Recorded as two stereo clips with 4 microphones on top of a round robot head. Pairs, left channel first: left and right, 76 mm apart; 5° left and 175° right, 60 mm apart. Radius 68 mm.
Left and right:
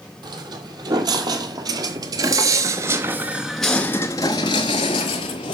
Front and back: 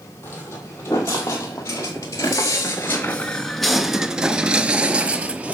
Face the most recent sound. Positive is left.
turn(degrees=115)